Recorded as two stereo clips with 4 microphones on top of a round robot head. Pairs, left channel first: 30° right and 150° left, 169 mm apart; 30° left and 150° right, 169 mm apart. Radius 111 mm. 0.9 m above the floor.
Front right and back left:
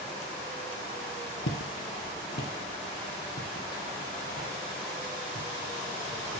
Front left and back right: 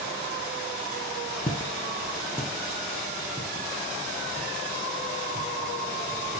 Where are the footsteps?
25° right, 1.3 m; by 6.4 s 80° right, 4 m.